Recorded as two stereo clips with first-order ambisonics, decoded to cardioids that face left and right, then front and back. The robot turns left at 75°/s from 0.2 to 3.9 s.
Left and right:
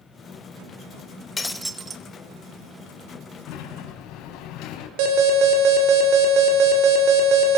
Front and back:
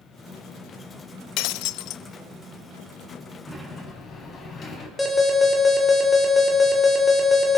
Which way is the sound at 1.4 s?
15° left.